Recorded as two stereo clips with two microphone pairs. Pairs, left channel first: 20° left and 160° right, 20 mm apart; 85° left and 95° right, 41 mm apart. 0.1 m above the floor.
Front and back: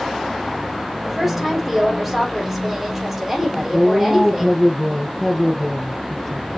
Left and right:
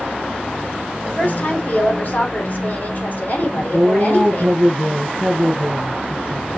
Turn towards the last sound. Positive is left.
turn(degrees=-70)